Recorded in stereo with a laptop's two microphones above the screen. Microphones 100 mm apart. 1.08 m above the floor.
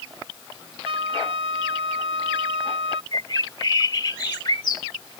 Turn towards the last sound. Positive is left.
turn(degrees=45)  # may be behind; listen again after turning